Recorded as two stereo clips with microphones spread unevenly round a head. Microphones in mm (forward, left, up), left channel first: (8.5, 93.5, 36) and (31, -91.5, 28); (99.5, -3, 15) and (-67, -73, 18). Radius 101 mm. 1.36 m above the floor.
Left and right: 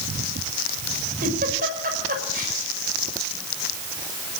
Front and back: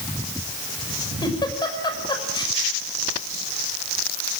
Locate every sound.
1.2 s a giggle: 40° right, 6 m